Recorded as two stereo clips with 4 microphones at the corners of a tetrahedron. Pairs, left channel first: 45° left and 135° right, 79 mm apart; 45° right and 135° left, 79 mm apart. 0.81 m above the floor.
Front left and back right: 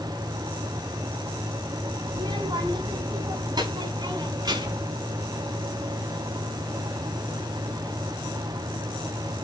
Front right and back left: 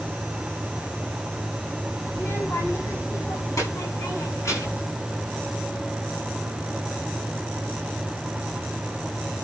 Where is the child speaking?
105° right, 4.5 m; by 4.9 s 100° right, 8 m.